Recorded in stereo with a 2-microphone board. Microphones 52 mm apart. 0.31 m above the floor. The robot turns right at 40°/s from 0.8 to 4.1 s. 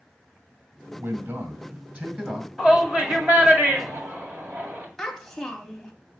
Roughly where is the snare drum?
No snare drum in this recording.